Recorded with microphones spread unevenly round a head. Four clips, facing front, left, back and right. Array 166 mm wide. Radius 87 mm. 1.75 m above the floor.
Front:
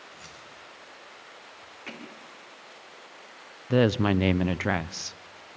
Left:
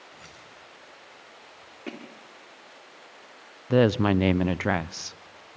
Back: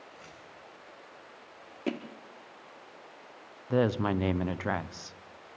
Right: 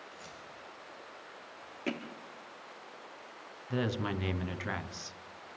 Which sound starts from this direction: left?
Keys jangling, at 0.1 s.